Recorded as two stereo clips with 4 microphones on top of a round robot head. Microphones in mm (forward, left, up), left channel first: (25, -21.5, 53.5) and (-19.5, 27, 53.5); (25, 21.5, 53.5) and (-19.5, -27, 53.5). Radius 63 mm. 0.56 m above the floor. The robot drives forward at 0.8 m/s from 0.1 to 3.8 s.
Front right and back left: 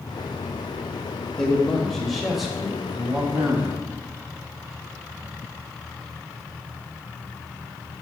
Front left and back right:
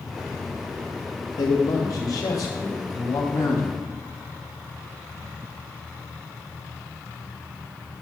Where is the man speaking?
35° left, 2.5 m; by 3.8 s 100° left, 1.6 m.